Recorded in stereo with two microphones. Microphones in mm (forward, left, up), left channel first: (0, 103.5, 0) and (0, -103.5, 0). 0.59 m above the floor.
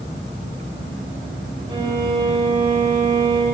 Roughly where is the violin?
Right.